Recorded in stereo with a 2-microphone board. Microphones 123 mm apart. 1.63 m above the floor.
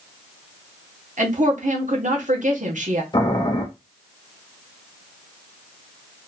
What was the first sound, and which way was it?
A woman speaking, 80° right.